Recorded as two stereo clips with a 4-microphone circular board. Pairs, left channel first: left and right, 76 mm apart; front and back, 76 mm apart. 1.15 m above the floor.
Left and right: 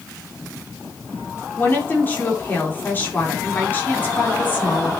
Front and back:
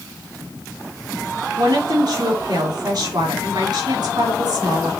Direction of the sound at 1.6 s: 150° left.